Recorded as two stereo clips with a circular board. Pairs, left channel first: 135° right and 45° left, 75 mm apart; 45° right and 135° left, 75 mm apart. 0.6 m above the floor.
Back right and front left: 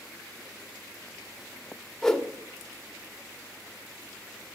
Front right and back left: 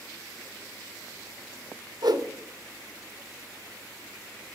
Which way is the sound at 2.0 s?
140° left.